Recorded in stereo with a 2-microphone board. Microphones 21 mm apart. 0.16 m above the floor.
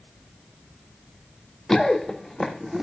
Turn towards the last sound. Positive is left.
turn(degrees=-15)  # may be behind; listen again after turning